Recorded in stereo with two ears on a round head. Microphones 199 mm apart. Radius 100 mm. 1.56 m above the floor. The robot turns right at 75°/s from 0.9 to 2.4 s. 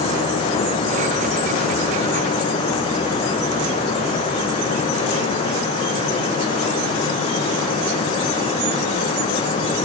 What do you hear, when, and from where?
Only background noise.